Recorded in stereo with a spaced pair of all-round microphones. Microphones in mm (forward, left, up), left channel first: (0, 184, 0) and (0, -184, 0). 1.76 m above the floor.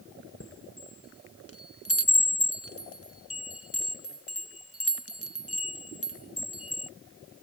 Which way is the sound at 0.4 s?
40° left (ahead or behind).